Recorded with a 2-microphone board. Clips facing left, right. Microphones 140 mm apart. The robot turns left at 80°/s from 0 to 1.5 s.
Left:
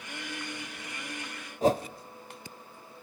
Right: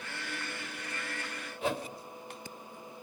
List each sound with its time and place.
1.6 s a whoosh: 40° left (ahead or behind), 0.8 m